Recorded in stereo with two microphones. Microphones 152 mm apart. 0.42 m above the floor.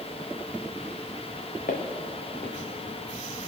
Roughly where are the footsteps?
Left.